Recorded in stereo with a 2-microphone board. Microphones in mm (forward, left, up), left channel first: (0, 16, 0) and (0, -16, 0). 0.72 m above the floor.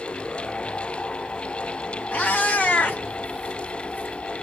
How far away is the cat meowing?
About 2 m.